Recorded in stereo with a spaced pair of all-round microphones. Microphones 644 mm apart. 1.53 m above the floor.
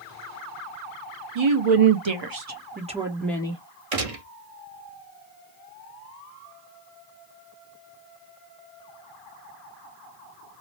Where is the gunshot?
65° right (ahead or behind), 0.9 m.